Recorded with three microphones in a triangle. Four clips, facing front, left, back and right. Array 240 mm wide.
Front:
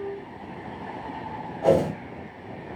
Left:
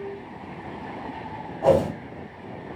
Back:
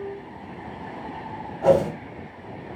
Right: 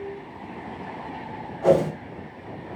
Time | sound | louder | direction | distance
1.6 | a whoosh | even, back 2 dB | 125° left | 1.3 m